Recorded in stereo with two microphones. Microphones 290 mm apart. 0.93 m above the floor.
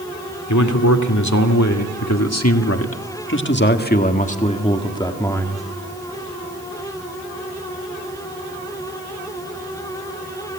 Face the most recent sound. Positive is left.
turn(degrees=5)  # may be behind; listen again after turning